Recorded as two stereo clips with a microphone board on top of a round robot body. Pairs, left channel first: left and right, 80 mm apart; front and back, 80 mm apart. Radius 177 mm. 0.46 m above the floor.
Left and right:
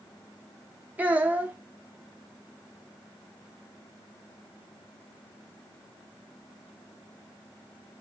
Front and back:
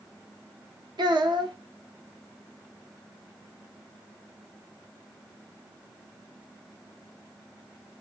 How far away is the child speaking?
About 0.9 m.